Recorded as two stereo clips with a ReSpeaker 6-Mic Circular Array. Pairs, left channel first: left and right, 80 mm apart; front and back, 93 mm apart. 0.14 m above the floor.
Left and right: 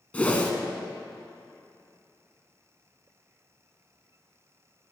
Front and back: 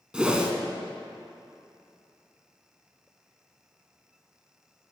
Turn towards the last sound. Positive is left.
turn(degrees=120)